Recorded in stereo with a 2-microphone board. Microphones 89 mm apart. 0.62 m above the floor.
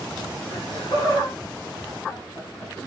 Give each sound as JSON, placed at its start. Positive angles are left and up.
{"t": 0.5, "sound": "laughter", "side_deg": 65, "distance_m": 7.5}